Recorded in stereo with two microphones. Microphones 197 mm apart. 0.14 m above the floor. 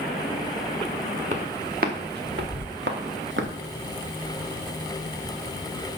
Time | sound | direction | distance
1.3 | footsteps | 45° right (ahead or behind) | 1.5 m